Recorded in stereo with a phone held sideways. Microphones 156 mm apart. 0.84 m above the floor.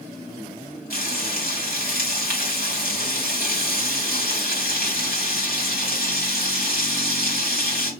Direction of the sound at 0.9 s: 65° left (ahead or behind).